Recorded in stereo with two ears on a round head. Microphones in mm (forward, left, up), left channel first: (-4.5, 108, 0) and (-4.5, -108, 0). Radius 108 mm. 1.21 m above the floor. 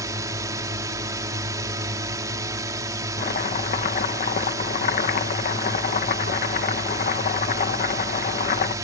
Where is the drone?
15° right (ahead or behind).